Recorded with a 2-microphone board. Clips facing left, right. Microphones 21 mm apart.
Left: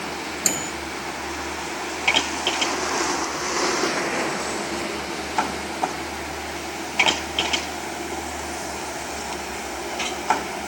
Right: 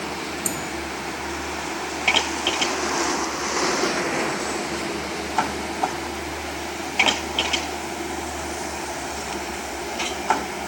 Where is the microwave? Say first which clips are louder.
Left 3 dB; 50° left (ahead or behind).